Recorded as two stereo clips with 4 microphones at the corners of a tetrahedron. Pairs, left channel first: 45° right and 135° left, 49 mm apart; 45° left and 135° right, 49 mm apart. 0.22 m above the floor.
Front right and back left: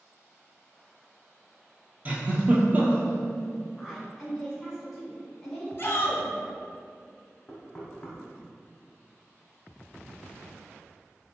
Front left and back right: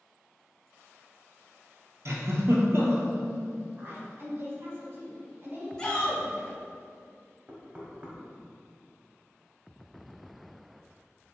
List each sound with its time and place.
2.0 s a giggle: 165° right, 0.8 m
3.8 s a woman speaking: 135° right, 1.4 m
5.8 s a shout: 20° right, 1.8 m
7.5 s knocking: 95° right, 0.8 m